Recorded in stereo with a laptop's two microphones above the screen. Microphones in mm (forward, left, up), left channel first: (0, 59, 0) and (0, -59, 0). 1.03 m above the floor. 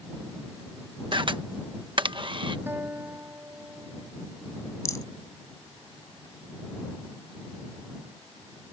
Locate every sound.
1.1 s a camera shutter: 45° right (ahead or behind)
2.7 s a guitar: 20° right (ahead or behind)
4.8 s a rattle: 25° left (ahead or behind)